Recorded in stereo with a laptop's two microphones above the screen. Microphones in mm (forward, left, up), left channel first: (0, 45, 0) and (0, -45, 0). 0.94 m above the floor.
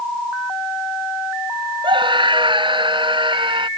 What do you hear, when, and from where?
1.8 s a scream: 65° right (ahead or behind); by 3.7 s 70° right (ahead or behind)